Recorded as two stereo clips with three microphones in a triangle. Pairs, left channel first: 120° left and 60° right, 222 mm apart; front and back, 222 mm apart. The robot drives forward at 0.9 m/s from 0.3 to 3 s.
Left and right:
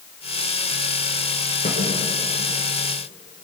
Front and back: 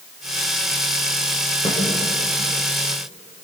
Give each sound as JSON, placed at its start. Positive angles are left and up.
{"t": 1.6, "sound": "a snare drum", "azimuth_deg": 70, "distance_m": 9.0}